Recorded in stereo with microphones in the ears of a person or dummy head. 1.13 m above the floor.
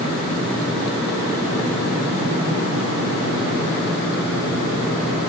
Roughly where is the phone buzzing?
No phone buzzing in this recording.